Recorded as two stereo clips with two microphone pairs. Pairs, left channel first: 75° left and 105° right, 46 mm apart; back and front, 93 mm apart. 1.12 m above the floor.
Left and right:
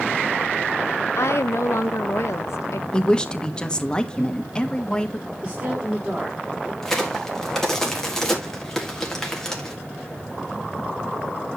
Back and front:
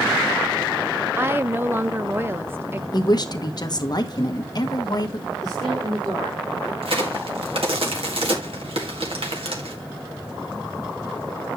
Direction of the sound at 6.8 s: 5° right.